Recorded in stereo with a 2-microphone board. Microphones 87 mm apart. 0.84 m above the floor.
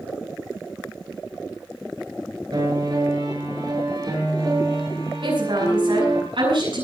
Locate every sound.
2.5 s a piano: 55° right (ahead or behind), 7.5 m
5.2 s a woman speaking: 80° right, 9 m